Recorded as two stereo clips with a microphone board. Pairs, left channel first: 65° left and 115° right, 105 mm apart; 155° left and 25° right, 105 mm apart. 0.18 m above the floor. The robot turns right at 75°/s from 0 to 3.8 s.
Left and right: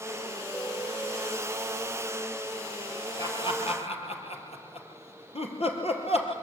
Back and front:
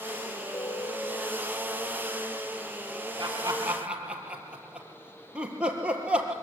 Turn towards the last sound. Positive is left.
turn(degrees=60)